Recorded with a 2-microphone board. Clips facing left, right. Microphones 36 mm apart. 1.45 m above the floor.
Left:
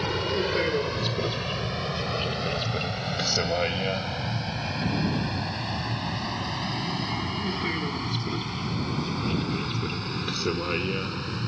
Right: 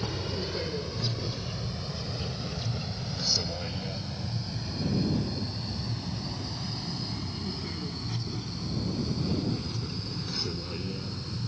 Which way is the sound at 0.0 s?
65° left (ahead or behind).